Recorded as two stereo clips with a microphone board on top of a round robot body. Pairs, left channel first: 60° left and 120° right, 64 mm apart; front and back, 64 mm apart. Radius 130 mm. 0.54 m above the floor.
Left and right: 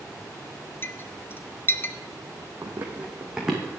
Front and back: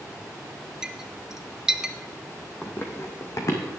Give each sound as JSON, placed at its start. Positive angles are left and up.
{"t": 0.8, "sound": "a clink", "azimuth_deg": 100, "distance_m": 0.9}
{"t": 2.6, "sound": "running footsteps", "azimuth_deg": -70, "distance_m": 1.3}